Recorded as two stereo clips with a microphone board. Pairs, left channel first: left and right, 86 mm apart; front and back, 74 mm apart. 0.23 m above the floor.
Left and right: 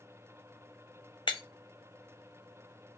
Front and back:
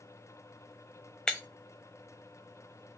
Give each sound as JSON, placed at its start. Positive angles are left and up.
{"t": 1.3, "sound": "breaking glass", "azimuth_deg": 80, "distance_m": 0.7}